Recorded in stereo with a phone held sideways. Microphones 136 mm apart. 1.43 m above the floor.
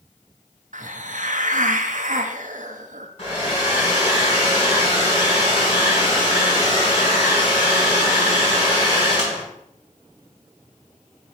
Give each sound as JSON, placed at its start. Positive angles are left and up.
{"t": 0.7, "sound": "a hiss", "side_deg": -70, "distance_m": 0.6}
{"t": 3.2, "sound": "a hair dryer", "side_deg": 45, "distance_m": 3.5}